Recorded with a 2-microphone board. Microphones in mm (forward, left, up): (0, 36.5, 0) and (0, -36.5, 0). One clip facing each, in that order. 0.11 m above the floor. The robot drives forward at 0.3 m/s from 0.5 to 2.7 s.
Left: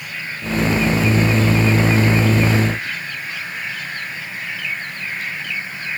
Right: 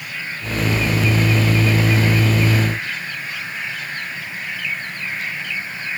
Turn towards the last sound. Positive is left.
No sound to turn to.